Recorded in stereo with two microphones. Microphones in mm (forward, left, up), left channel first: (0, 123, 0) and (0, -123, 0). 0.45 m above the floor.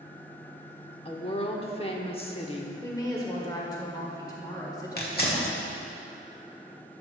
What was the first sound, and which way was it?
A woman speaking, 25° left (ahead or behind).